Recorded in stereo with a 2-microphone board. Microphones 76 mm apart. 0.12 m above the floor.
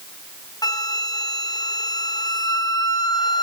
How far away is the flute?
About 1.0 m.